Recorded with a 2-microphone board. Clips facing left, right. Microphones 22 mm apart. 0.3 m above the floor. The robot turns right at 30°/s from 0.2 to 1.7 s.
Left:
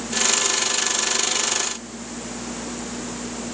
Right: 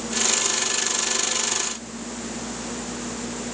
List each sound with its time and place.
Only background noise.